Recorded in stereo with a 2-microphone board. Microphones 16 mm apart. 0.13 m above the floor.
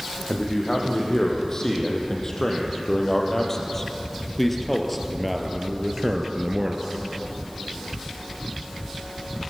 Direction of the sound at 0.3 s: 40° left (ahead or behind).